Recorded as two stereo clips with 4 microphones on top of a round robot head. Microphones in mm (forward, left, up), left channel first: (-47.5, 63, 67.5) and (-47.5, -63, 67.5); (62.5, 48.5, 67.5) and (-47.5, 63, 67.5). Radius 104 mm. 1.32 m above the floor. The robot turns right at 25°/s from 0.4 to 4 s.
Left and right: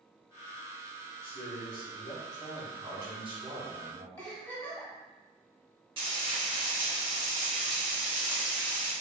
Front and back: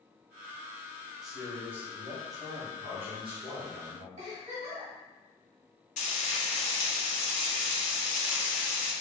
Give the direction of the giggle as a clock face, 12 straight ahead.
6 o'clock.